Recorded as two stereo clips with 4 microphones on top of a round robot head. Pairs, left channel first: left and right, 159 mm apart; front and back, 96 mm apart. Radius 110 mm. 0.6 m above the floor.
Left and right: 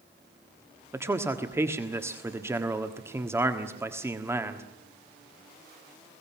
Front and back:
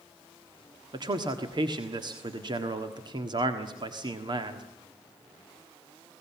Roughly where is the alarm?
I don't hear an alarm.